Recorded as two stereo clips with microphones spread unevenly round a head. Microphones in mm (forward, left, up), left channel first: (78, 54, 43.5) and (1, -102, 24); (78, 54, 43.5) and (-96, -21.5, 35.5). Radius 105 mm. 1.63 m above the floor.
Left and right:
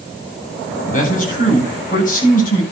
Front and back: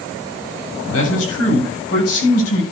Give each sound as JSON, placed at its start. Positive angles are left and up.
{"t": 0.9, "sound": "a man speaking", "azimuth_deg": 20, "distance_m": 9.0}